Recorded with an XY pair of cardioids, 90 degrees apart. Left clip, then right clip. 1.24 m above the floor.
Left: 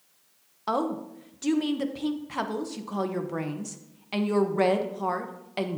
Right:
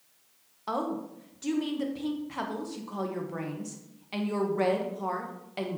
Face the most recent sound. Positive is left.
turn(degrees=35)